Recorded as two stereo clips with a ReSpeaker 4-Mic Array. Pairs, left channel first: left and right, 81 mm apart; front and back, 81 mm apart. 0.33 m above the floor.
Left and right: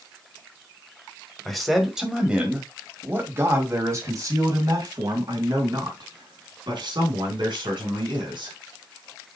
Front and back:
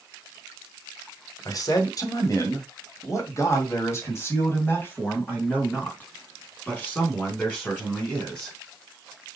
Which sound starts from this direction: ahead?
A man speaking, at 1.4 s.